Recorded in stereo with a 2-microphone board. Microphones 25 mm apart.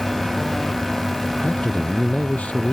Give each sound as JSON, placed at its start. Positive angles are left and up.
{"t": 1.4, "sound": "a man speaking", "side_deg": 60}